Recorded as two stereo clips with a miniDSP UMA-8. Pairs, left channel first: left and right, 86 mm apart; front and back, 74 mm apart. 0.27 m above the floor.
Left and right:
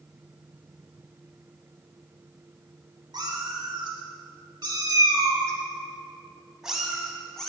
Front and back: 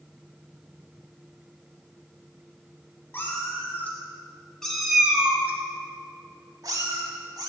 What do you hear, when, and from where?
3.1 s a cat meowing: 60° right, 1.5 m; by 7.5 s 170° left, 1.3 m